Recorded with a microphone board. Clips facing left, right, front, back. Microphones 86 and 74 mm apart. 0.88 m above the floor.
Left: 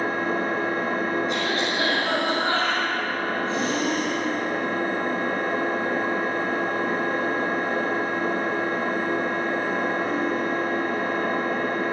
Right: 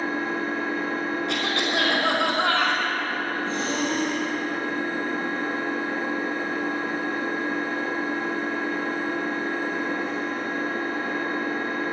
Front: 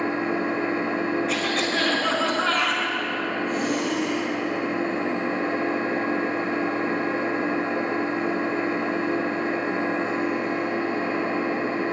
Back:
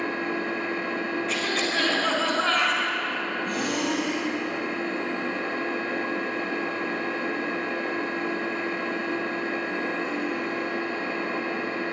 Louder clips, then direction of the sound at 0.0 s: Left 2 dB, front 4 dB; 65° left.